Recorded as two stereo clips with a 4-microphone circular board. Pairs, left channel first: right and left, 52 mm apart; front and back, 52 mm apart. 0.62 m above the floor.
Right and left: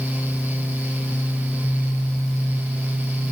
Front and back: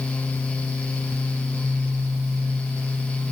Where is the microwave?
No microwave in this recording.